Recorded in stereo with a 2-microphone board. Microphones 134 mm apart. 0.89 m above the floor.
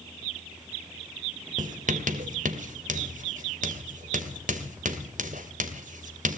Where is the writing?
70° right (ahead or behind), 2.5 m.